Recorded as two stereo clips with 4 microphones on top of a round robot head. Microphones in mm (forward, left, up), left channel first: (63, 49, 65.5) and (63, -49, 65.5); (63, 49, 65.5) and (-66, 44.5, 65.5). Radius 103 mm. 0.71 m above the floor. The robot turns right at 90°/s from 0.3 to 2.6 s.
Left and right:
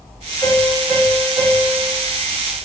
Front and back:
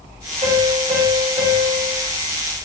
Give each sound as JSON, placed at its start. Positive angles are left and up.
{"t": 0.4, "sound": "a piano", "azimuth_deg": 180, "distance_m": 2.5}